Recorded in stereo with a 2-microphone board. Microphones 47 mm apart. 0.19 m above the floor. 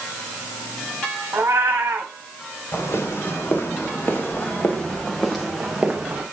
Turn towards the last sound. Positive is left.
turn(degrees=-15)  # may be behind; listen again after turning